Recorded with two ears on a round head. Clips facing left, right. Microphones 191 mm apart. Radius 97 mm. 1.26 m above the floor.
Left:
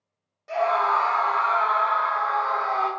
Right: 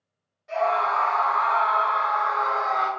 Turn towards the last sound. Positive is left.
turn(degrees=-15)  # may be behind; listen again after turning